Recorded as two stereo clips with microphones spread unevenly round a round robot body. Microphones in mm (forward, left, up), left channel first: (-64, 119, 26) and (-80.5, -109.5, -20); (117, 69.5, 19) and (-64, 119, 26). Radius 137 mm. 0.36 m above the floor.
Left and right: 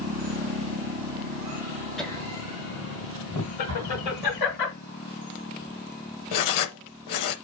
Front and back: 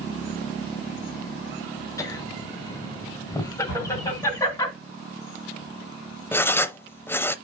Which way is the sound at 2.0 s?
35° right.